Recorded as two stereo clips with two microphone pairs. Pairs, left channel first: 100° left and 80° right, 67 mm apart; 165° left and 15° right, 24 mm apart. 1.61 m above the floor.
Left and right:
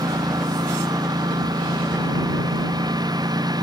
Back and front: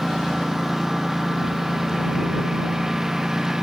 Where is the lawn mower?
85° right; by 3.6 s 80° right.